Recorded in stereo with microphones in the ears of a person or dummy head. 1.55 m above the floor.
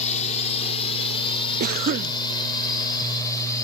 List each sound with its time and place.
0.0 s a drone: 40° left (ahead or behind); by 3.6 s 20° left (ahead or behind)
1.6 s a cough: 45° right (ahead or behind)